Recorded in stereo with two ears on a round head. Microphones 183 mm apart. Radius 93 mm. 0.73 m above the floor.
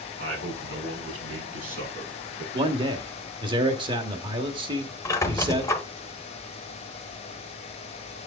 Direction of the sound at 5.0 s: 15° left (ahead or behind).